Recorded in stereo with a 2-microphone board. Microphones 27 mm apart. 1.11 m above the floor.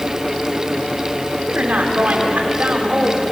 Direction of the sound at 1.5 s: 80° right.